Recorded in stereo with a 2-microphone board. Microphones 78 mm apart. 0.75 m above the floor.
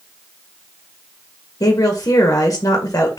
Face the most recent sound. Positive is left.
turn(degrees=45)  # may be behind; listen again after turning